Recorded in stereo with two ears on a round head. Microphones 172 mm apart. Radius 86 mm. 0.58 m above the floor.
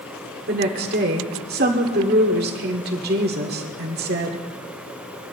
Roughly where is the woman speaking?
Right.